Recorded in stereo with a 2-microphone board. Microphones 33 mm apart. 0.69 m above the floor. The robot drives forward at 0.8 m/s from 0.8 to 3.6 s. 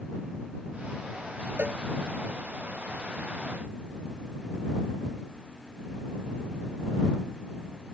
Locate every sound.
1.6 s a cowbell: 55° right (ahead or behind)